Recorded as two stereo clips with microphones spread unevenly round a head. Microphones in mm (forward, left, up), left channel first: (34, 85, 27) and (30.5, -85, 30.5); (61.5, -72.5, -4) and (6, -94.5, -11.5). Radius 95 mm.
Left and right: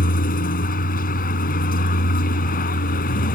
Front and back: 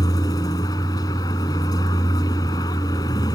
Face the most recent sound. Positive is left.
turn(degrees=50)